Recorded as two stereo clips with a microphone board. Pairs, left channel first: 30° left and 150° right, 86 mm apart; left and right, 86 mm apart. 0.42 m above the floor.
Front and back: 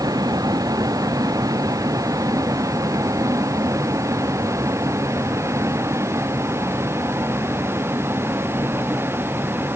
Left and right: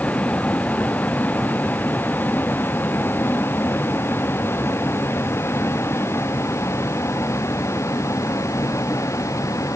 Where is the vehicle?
165° left; by 9.8 s 145° left.